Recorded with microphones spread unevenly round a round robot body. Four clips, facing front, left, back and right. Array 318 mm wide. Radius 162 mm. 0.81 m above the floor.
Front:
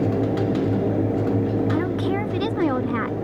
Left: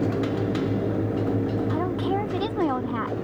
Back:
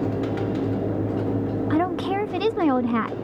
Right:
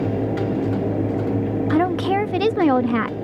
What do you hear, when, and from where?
1.7 s a woman speaking: 120° right